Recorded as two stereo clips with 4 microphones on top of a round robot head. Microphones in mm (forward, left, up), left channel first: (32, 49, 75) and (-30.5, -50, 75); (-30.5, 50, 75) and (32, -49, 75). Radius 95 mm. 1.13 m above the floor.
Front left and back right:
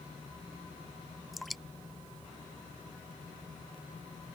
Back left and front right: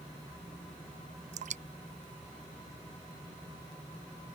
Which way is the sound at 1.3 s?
30° right.